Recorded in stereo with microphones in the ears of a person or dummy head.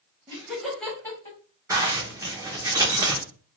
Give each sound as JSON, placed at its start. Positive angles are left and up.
{"t": 0.3, "sound": "laughter", "side_deg": -20, "distance_m": 0.9}
{"t": 1.7, "sound": "a zipper", "side_deg": -10, "distance_m": 0.6}